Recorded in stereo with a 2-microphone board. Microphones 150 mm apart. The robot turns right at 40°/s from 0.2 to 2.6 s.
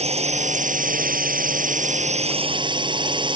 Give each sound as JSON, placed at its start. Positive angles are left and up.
{"t": 0.0, "sound": "a drone", "azimuth_deg": -130}